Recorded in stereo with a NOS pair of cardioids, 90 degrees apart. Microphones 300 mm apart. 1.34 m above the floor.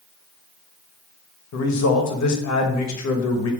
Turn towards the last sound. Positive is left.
turn(degrees=65)